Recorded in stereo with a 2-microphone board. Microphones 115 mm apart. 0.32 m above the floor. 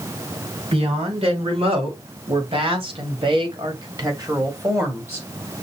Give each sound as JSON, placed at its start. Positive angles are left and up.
{"t": 0.7, "sound": "a woman speaking", "side_deg": -60, "distance_m": 3.0}